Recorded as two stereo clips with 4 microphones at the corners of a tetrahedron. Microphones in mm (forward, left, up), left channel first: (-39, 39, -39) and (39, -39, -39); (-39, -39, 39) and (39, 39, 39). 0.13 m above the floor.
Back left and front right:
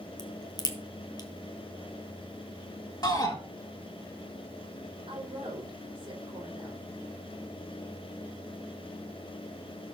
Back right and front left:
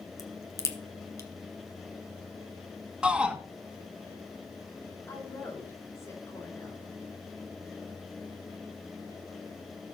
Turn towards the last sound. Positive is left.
turn(degrees=-75)